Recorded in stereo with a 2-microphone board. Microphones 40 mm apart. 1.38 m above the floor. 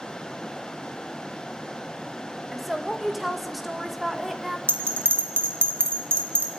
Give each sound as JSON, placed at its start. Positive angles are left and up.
{"t": 2.5, "sound": "a woman speaking", "side_deg": -5, "distance_m": 1.9}
{"t": 4.7, "sound": "a bell", "side_deg": -60, "distance_m": 1.9}